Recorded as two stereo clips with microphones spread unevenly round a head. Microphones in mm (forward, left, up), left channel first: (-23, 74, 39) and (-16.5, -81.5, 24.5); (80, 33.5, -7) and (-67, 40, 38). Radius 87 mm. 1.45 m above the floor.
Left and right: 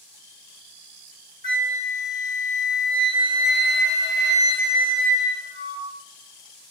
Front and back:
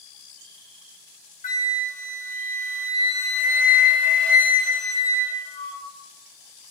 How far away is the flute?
About 1.5 m.